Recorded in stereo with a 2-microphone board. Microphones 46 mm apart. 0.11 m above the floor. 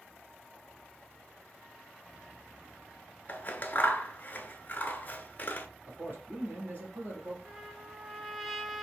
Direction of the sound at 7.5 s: 5° right (ahead or behind).